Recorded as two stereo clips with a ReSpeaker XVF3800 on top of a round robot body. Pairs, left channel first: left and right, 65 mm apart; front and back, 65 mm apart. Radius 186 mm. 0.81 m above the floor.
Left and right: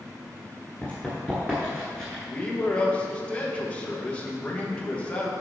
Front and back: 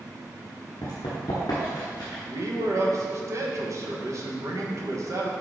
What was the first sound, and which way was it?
Running footsteps, 40° left.